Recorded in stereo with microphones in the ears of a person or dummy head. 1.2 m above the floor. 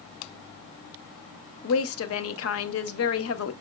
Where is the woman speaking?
70° left (ahead or behind), 0.6 m.